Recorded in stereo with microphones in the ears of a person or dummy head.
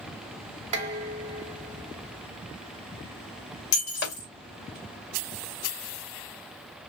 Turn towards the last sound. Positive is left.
turn(degrees=60)  # may be behind; listen again after turning